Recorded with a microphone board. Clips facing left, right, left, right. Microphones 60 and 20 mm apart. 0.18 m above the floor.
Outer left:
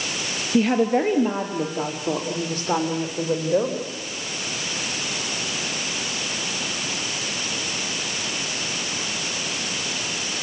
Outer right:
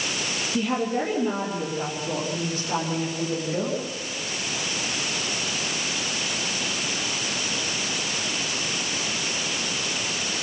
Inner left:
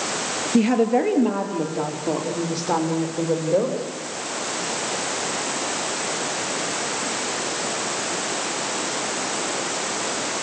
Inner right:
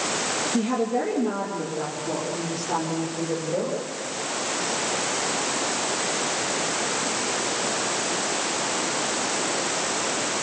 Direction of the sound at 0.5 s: 65° left (ahead or behind).